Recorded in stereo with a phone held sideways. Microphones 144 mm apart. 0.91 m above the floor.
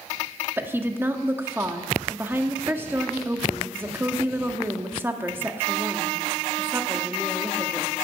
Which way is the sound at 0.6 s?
15° right (ahead or behind).